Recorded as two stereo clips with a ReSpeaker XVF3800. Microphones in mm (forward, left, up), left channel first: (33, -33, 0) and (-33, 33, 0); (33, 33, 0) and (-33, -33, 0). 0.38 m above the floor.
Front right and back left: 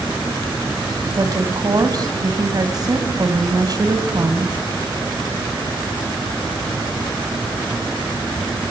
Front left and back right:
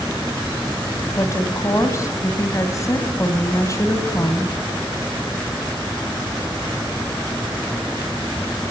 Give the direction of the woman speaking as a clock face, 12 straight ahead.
9 o'clock.